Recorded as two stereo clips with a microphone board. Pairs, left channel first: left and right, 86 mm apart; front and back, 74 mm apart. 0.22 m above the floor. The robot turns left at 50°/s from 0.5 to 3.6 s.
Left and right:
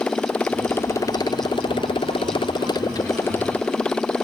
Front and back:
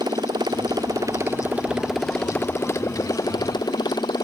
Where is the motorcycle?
165° left; by 4.2 s 10° left.